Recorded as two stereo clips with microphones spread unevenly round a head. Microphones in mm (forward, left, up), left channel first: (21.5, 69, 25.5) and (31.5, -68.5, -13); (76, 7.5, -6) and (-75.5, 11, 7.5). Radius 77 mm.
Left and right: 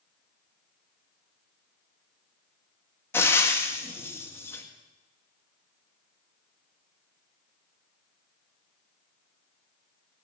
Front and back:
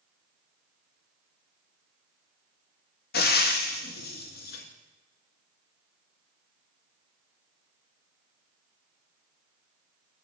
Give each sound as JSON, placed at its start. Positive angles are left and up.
{"t": 3.1, "sound": "frying", "azimuth_deg": 20, "distance_m": 1.8}